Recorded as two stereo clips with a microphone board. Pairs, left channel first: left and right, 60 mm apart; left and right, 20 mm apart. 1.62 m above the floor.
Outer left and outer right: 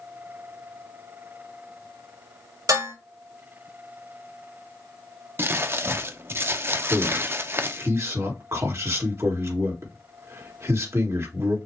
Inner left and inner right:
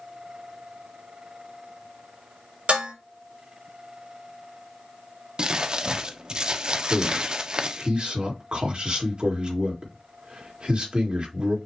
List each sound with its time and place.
2.7 s dishes clattering: 65° right (ahead or behind), 3.5 m
5.4 s crumpling: 40° right (ahead or behind), 0.5 m
6.9 s a man speaking: 50° right (ahead or behind), 1.8 m